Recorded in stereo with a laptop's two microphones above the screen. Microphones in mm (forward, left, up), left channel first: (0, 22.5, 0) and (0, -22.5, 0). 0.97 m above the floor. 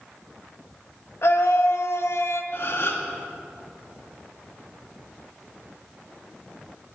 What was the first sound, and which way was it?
A scream, 65° left (ahead or behind).